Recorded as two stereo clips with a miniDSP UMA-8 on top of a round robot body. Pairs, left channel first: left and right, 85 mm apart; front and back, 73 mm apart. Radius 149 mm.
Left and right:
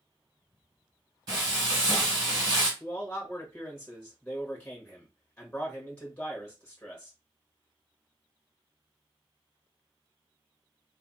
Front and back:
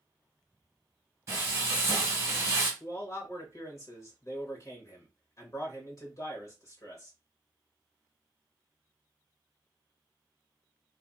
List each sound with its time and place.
1.3 s frying: 130° right, 0.9 m
2.8 s a man speaking: 20° left, 1.3 m